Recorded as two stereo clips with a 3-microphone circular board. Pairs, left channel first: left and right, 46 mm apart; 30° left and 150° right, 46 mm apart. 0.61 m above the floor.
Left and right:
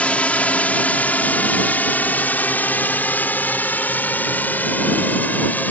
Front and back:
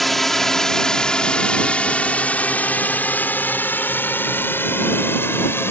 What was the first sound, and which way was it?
A drone, 115° left.